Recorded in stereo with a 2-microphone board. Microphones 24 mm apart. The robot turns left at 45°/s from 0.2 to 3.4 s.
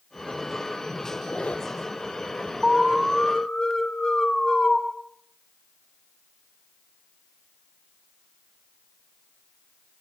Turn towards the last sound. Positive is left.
turn(degrees=160)